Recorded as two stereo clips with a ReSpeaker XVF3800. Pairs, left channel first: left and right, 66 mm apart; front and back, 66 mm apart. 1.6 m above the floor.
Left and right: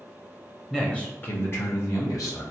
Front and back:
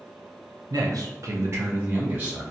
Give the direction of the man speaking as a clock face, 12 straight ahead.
6 o'clock.